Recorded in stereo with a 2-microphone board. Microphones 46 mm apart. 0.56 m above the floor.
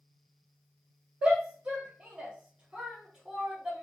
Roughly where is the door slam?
I don't hear a door slam.